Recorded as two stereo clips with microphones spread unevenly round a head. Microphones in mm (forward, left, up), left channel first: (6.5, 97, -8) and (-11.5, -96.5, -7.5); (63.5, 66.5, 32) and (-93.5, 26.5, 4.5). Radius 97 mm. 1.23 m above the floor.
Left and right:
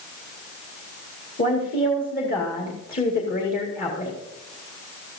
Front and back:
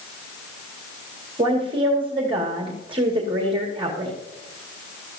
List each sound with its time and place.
1.4 s a woman speaking: 135° left, 2 m